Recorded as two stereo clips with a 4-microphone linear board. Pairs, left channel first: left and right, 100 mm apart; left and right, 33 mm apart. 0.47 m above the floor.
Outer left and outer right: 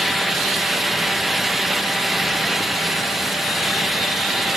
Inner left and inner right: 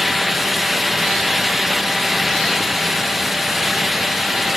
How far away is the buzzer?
I don't hear a buzzer.